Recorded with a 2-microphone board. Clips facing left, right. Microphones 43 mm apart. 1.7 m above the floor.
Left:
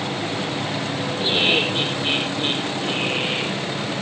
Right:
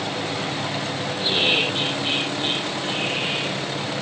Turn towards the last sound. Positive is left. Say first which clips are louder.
# left 1 dB
turn(degrees=15)  # may be behind; listen again after turning